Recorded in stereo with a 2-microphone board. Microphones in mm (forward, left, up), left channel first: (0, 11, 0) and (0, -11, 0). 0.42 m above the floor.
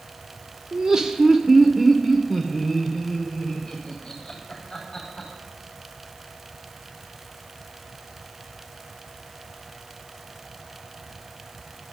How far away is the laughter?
About 0.8 m.